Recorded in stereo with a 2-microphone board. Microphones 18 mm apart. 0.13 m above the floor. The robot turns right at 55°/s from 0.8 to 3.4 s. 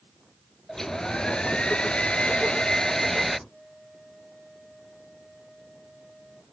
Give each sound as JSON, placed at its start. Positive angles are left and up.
{"t": 0.7, "sound": "a hair dryer", "azimuth_deg": 25}
{"t": 3.5, "sound": "a flute", "side_deg": -5}